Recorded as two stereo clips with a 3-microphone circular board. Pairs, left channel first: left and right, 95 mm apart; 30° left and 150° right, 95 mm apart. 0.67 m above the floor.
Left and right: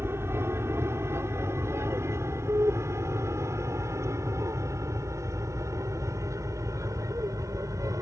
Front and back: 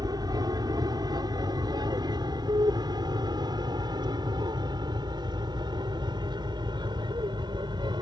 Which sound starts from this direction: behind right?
An aircraft, at 0.0 s.